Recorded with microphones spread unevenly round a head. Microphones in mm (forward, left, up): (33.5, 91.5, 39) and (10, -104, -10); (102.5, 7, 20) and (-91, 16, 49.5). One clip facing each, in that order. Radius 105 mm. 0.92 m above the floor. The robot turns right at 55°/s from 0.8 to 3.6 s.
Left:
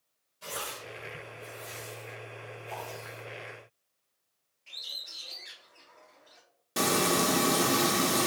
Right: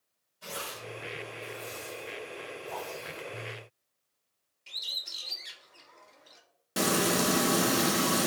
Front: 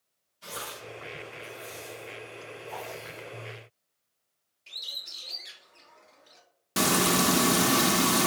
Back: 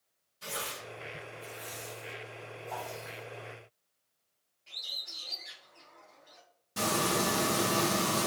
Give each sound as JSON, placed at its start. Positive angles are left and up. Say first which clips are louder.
{"t": 0.4, "sound": "tearing paper", "louder": "even, even", "azimuth_deg": 155, "distance_m": 2.0}
{"t": 2.7, "sound": "a whoosh", "louder": "right 1 dB, front 1 dB", "azimuth_deg": 175, "distance_m": 1.4}
{"t": 4.7, "sound": "a bird", "louder": "right 1 dB, even", "azimuth_deg": -60, "distance_m": 0.8}
{"t": 6.8, "sound": "frying", "louder": "even, front 5 dB", "azimuth_deg": -10, "distance_m": 0.5}